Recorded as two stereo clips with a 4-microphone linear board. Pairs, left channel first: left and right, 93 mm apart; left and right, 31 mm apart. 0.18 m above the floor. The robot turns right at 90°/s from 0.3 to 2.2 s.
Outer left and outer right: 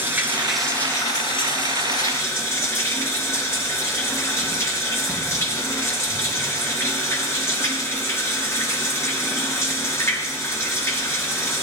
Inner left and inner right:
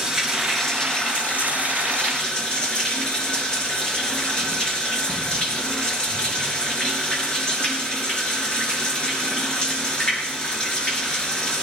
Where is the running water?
25° right, 3 m; by 11.6 s 150° left, 3 m.